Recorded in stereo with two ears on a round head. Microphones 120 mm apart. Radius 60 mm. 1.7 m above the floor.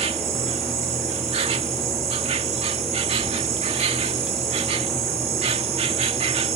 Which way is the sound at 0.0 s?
45° right (ahead or behind).